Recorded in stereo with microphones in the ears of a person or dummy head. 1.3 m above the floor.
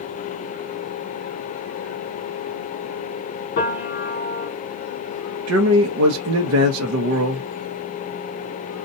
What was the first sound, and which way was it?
A piano, 45° left (ahead or behind).